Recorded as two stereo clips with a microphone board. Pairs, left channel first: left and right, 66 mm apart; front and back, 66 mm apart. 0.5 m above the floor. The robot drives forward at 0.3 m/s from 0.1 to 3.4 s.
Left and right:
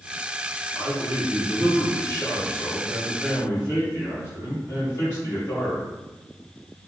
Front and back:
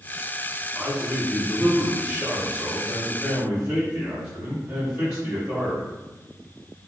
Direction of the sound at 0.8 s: 95° left.